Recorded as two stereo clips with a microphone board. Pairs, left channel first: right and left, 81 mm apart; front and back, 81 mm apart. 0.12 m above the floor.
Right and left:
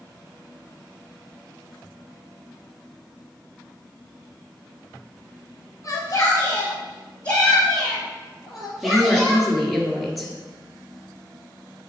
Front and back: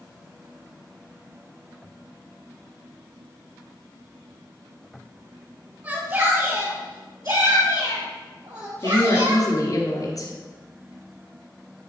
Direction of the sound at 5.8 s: 125° right.